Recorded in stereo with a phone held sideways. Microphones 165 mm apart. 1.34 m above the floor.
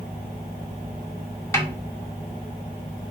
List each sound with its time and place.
1.5 s a snare drum: 15° left (ahead or behind), 1.1 m